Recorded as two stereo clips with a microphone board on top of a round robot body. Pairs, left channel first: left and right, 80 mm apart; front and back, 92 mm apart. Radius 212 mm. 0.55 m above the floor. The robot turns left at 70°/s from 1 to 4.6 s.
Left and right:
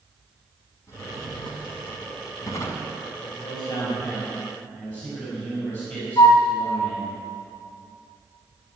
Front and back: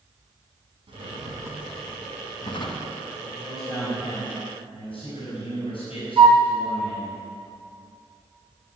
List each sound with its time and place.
0.9 s a drawer: 145° left, 1.9 m; by 2.9 s 10° left, 1.9 m
3.2 s a man speaking: 75° left, 5 m; by 7.2 s 20° right, 5 m
6.2 s a flute: 150° left, 0.5 m